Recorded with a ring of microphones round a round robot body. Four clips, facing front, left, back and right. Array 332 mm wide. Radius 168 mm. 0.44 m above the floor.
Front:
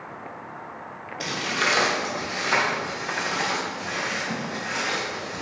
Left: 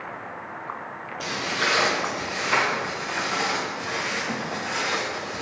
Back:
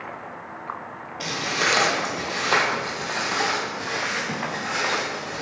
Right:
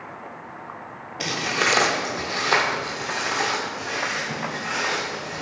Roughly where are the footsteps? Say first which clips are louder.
Right 3 dB, back 1 dB; right.